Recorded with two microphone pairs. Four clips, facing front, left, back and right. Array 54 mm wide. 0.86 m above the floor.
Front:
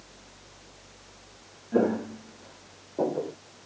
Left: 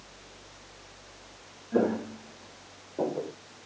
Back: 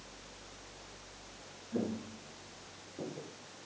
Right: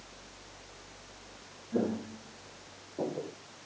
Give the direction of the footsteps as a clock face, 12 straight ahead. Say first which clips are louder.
Left 6 dB, front 12 dB; 11 o'clock.